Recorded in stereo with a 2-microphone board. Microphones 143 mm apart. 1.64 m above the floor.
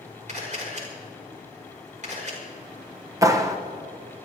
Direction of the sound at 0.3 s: 55° right (ahead or behind).